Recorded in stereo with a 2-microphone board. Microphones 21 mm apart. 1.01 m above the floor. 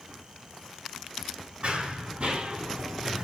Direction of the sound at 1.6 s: 55° right (ahead or behind).